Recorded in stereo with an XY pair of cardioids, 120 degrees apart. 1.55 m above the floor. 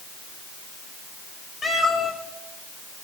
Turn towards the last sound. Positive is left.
turn(degrees=5)